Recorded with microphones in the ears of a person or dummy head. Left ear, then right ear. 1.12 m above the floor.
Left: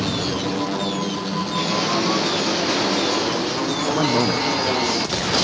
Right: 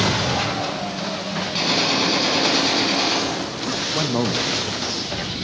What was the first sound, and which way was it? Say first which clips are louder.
A gunshot: right 2 dB; 25° right (ahead or behind).